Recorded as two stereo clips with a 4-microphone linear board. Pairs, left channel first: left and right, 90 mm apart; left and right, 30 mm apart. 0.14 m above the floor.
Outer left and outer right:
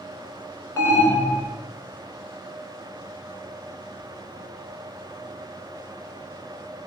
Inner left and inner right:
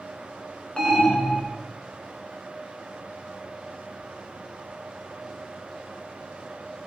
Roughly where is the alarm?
Left.